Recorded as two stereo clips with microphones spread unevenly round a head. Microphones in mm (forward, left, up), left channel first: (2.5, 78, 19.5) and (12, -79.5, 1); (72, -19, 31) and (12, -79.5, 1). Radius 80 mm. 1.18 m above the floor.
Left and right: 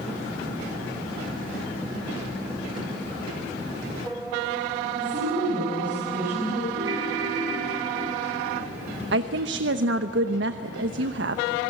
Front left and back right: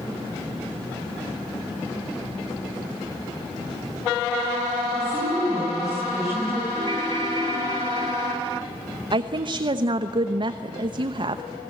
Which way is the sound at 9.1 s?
105° right.